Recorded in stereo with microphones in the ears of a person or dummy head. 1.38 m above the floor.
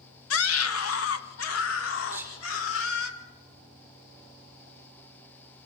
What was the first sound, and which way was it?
A scream, 80° left.